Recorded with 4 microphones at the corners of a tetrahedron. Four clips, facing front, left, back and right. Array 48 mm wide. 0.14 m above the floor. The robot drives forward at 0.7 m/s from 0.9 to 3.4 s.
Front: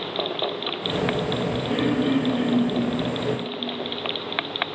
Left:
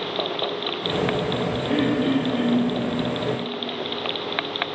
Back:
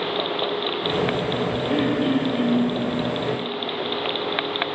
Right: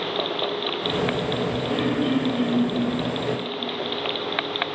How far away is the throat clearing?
About 1.3 m.